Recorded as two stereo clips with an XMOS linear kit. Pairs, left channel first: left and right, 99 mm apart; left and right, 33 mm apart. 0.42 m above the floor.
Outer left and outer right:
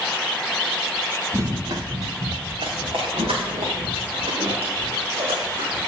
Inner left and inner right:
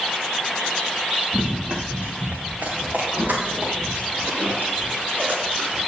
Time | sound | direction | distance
1.3 | running footsteps | 30° right (ahead or behind) | 2 m